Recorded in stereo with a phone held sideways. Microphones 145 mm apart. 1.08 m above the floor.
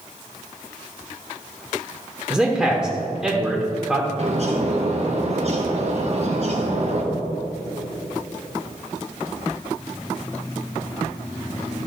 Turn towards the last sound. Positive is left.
turn(degrees=-50)  # may be behind; listen again after turning